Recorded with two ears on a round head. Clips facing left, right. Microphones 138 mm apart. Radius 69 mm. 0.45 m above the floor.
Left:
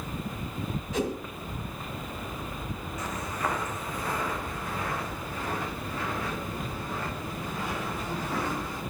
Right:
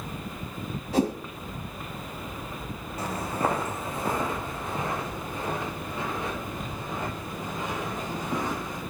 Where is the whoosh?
35° right (ahead or behind), 1.9 m.